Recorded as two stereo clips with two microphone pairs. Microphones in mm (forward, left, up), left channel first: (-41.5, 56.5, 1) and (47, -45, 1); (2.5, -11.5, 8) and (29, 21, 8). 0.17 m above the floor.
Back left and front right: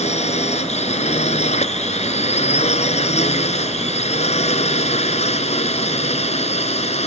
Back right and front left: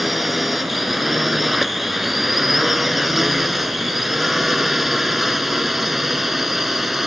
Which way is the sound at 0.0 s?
140° left.